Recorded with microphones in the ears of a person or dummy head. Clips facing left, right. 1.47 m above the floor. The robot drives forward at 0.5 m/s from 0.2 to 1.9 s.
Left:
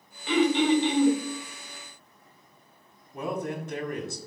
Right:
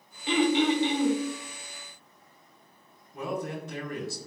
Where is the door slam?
I don't hear a door slam.